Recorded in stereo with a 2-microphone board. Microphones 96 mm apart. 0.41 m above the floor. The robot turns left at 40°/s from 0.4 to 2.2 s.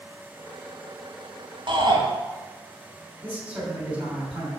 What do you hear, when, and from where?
1.7 s a shout: 55° right (ahead or behind), 1.9 m; by 2.0 s 45° right (ahead or behind), 1.9 m
3.2 s a man speaking: 10° right (ahead or behind), 2.5 m